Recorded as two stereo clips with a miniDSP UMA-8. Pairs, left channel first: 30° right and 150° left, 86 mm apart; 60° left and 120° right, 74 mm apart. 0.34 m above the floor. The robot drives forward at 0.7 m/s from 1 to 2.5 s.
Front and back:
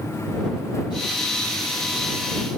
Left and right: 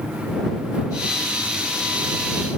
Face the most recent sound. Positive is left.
No sound to turn to.